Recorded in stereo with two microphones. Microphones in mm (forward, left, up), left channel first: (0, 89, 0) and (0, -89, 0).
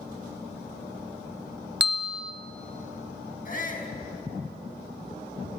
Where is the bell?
75° right (ahead or behind), 0.6 m.